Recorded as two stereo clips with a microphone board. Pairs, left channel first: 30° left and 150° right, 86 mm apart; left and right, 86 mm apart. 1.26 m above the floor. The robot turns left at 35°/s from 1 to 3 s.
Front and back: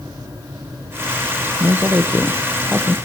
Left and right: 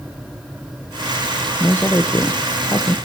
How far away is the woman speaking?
About 0.9 m.